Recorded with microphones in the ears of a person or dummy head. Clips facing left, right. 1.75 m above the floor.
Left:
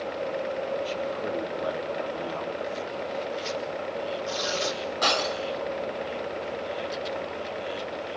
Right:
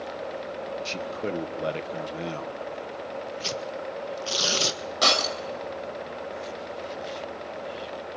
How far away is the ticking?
No ticking in this recording.